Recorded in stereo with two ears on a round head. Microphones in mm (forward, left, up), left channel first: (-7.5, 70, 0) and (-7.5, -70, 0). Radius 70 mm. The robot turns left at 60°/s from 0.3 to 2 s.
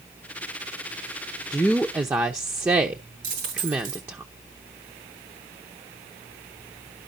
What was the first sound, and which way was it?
A woman speaking, 10° left.